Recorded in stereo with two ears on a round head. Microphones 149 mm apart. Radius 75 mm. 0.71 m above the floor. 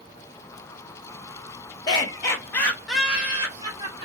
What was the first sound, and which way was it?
Laughter, 25° left (ahead or behind).